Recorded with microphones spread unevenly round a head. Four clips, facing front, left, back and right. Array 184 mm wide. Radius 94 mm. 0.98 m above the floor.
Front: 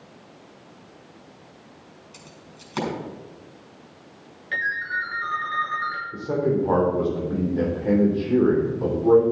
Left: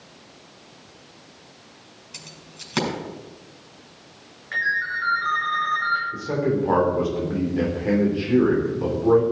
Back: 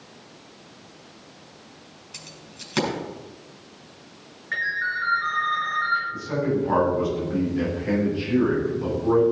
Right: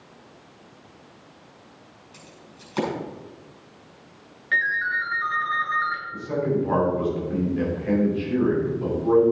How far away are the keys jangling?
About 5.5 m.